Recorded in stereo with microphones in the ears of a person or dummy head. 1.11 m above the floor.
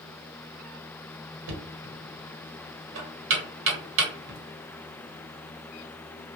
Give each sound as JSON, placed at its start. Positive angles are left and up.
{"t": 1.5, "sound": "knocking", "side_deg": -70, "distance_m": 1.1}